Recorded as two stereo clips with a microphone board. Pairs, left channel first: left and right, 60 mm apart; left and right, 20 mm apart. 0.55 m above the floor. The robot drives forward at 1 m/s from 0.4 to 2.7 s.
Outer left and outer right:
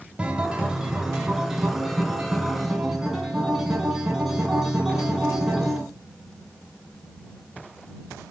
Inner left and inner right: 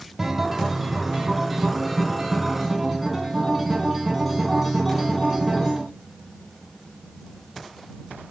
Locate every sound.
0.2 s a guitar: 15° right (ahead or behind), 1.7 m; by 5.8 s 5° right (ahead or behind), 4 m